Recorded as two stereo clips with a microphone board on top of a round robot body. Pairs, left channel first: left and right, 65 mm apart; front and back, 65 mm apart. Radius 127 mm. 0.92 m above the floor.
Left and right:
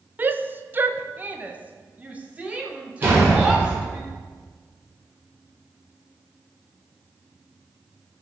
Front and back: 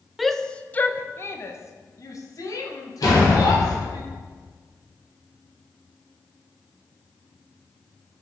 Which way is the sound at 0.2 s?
90° right.